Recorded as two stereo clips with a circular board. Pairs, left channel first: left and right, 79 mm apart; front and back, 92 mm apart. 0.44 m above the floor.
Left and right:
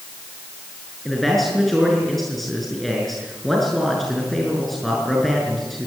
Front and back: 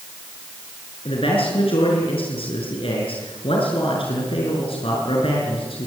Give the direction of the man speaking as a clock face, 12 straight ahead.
12 o'clock.